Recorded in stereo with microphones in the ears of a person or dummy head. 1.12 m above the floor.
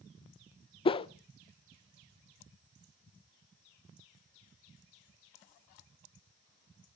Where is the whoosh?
30° left (ahead or behind), 0.5 m.